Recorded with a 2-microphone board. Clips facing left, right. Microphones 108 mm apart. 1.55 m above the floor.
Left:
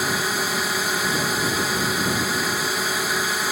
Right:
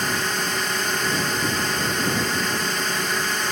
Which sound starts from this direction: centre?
A drone, at 0.0 s.